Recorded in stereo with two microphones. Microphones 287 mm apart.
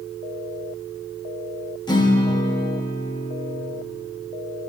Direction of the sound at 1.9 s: 15° left (ahead or behind).